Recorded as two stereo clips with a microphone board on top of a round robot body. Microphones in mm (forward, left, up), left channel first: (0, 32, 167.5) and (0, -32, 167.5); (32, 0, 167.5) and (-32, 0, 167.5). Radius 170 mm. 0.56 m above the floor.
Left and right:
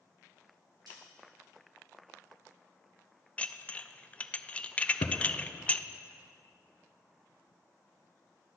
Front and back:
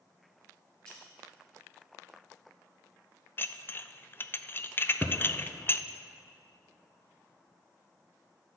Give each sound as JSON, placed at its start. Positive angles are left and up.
{"t": 0.9, "sound": "a snare drum", "azimuth_deg": -80, "distance_m": 4.5}
{"t": 3.4, "sound": "dishes clattering", "azimuth_deg": 35, "distance_m": 0.6}
{"t": 5.0, "sound": "a thud", "azimuth_deg": 90, "distance_m": 0.8}